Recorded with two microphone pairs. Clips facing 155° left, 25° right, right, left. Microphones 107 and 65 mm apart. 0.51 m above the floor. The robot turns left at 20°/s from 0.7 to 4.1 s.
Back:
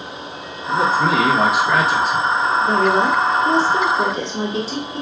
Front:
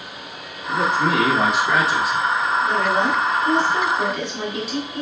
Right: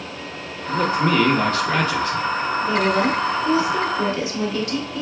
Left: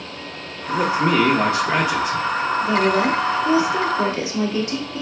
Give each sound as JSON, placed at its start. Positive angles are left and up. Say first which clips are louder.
{"t": 0.7, "sound": "a man speaking", "louder": "back 3 dB, left 1 dB", "azimuth_deg": 80, "distance_m": 0.9}
{"t": 2.6, "sound": "a woman speaking", "louder": "back 5 dB, left 1 dB", "azimuth_deg": 155, "distance_m": 1.1}